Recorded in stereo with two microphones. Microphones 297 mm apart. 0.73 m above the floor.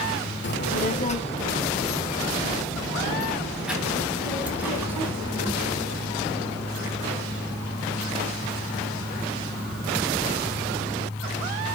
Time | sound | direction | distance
0.4 | a child speaking | 40° left (ahead or behind) | 1.0 m